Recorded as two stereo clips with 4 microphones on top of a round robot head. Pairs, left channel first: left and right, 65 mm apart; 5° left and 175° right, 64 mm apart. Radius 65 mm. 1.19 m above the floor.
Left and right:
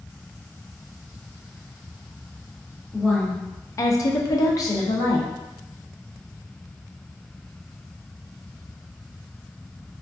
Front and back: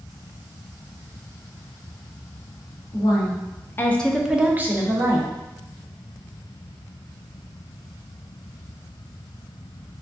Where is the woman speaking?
10° left, 0.8 m; by 5.3 s 140° left, 1.0 m.